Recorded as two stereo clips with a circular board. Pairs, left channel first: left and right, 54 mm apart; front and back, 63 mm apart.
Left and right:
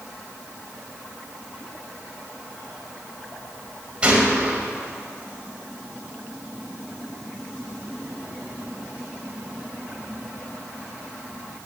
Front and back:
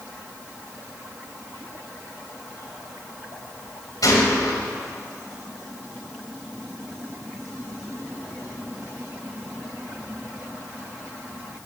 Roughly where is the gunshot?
Ahead.